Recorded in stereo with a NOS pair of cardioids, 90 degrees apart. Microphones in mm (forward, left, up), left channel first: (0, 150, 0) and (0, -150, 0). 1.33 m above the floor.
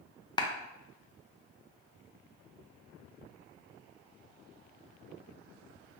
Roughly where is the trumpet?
I don't hear a trumpet.